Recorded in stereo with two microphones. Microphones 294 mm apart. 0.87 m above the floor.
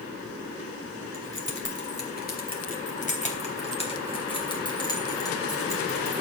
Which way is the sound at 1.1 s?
45° left (ahead or behind).